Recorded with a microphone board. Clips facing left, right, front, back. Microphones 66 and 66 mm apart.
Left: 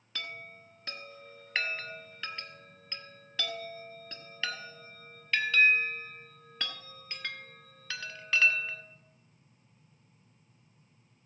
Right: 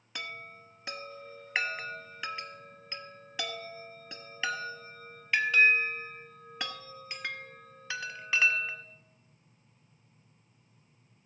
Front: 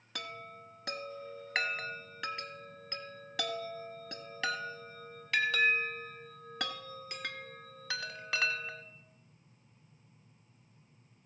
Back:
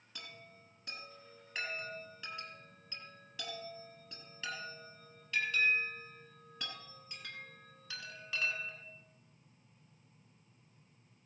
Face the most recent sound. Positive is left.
turn(degrees=-15)